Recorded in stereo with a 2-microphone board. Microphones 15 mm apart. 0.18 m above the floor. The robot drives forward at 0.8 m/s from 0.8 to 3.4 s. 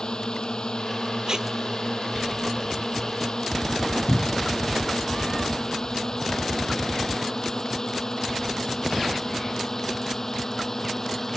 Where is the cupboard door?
30° left (ahead or behind).